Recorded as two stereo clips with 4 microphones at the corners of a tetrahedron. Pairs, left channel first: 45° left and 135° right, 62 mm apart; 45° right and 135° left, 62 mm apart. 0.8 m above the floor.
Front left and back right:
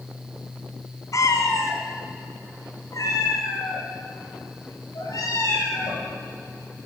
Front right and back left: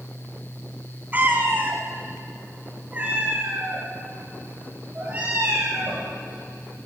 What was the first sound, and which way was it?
A cat meowing, 75° left.